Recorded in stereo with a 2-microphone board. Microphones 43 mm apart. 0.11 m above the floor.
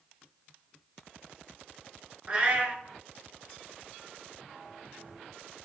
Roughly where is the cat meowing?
Right.